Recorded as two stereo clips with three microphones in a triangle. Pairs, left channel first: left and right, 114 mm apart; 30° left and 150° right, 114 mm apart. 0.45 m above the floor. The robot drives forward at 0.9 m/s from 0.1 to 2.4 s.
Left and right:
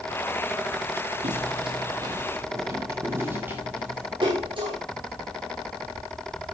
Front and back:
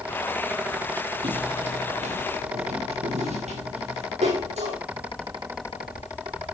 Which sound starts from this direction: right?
Footsteps, at 1.2 s.